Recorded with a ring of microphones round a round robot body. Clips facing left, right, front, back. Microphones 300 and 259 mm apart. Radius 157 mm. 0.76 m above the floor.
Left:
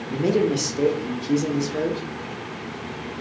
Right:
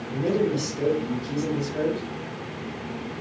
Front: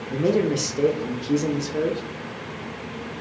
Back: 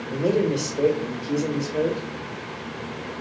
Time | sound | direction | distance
0.1 | a man speaking | 65° left | 0.9 m